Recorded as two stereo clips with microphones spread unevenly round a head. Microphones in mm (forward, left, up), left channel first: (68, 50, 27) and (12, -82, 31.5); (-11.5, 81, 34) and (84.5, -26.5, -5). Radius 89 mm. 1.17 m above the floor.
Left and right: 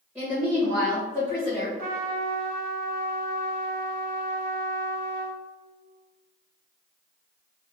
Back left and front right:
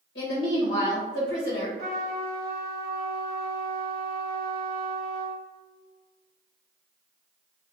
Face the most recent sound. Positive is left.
turn(degrees=-95)